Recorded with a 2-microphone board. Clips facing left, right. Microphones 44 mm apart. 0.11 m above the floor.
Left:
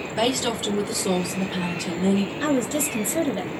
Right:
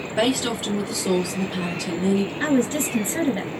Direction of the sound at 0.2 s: 10° right (ahead or behind).